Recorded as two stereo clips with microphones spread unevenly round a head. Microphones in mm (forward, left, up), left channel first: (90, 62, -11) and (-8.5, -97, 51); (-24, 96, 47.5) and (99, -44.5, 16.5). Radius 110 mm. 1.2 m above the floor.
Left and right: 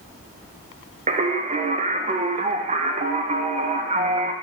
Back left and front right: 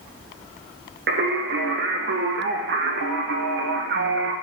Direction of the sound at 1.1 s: 60° right.